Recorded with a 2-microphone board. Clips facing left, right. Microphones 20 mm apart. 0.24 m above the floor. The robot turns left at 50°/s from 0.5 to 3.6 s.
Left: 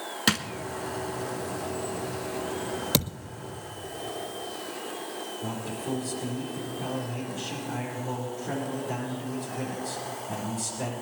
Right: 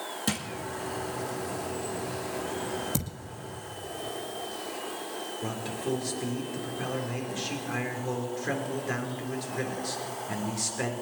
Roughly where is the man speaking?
Right.